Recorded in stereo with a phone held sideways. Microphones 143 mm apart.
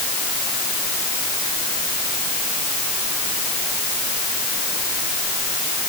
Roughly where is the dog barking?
No dog barking in this recording.